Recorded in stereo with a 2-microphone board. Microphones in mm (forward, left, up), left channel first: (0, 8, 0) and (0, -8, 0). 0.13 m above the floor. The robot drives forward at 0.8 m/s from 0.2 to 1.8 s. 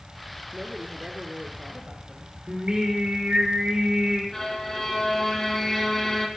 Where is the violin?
25° left (ahead or behind), 3.5 m.